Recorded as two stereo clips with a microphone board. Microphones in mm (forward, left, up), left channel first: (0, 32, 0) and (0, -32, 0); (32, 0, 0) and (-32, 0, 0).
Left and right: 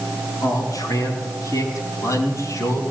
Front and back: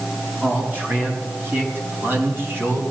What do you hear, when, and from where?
0.4 s a man speaking: 120° left, 5.5 m; by 2.8 s 130° left, 4 m